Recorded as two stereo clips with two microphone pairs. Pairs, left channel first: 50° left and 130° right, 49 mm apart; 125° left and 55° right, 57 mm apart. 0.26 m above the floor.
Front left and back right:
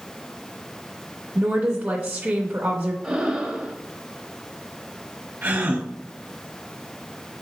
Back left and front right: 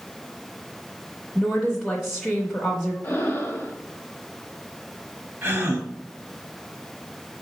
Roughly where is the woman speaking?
Behind right.